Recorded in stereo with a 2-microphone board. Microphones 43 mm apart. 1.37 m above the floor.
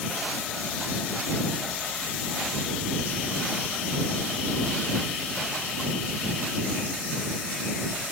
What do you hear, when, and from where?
Only background noise.